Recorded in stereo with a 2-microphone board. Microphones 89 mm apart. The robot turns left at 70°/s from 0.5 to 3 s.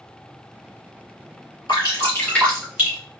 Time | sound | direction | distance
1.7 | dripping | 60° left (ahead or behind) | 2.5 m